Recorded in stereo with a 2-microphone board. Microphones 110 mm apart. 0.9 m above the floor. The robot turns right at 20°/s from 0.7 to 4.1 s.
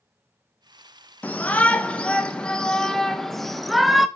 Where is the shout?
15° left (ahead or behind), 0.7 m; by 4.1 s centre (ahead or behind), 0.7 m.